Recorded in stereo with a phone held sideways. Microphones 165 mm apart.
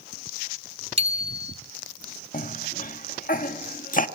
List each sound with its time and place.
1.0 s a bicycle bell: 40° right (ahead or behind), 2 m
2.3 s a cough: 55° left (ahead or behind), 1.5 m